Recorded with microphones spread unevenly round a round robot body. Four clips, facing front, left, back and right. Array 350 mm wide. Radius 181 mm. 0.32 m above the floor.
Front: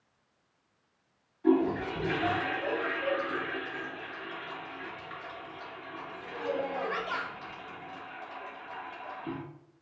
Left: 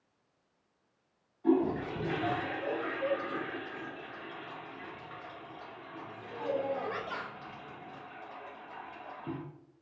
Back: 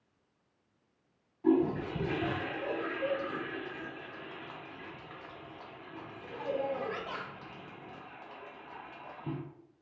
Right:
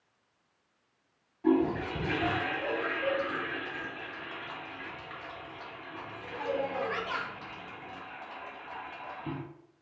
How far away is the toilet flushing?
About 1.5 m.